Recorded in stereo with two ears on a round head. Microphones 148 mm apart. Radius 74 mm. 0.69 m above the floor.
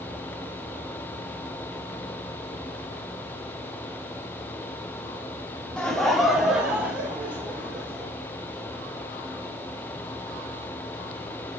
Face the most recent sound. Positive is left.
turn(degrees=-10)  # may be behind; listen again after turning